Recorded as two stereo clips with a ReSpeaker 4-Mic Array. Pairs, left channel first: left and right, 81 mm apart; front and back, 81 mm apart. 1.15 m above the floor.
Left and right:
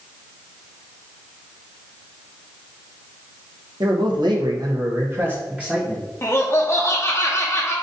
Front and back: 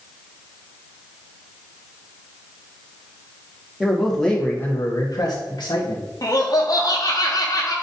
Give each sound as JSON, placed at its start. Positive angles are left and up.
{"t": 3.8, "sound": "a man speaking", "azimuth_deg": -95, "distance_m": 1.2}
{"t": 6.2, "sound": "laughter", "azimuth_deg": 35, "distance_m": 0.6}